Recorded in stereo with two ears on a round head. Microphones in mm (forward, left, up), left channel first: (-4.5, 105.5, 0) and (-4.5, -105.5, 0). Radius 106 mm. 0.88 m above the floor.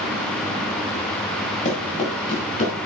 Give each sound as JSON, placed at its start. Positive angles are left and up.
{"t": 1.6, "sound": "running footsteps", "side_deg": 25, "distance_m": 8.5}